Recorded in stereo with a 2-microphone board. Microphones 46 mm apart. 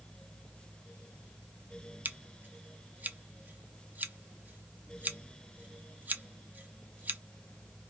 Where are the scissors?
40° right (ahead or behind), 0.5 m.